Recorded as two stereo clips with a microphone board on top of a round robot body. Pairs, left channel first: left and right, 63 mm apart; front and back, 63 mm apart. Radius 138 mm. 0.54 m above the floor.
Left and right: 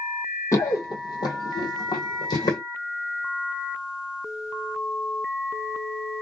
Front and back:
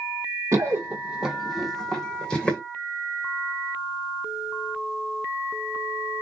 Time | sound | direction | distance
0.5 | running footsteps | 135° left | 0.7 m